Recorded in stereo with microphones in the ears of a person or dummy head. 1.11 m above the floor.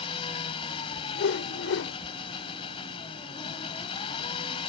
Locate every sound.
0.0 s an engine running: 30° left (ahead or behind)
1.1 s a whoosh: 75° left (ahead or behind)